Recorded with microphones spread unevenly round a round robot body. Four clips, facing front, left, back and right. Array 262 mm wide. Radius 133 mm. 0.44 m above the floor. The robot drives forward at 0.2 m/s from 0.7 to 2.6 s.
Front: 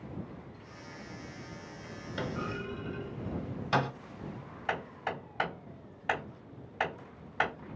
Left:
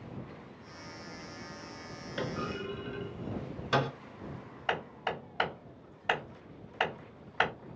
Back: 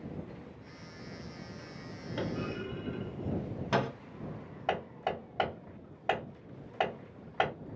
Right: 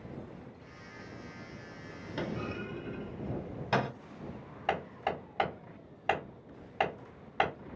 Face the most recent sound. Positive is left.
turn(degrees=-155)